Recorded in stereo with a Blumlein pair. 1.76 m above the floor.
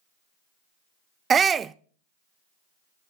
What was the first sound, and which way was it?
A shout, 20° right.